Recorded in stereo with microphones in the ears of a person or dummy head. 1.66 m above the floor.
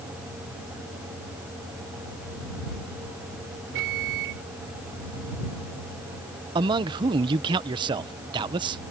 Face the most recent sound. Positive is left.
turn(degrees=-30)  # may be behind; listen again after turning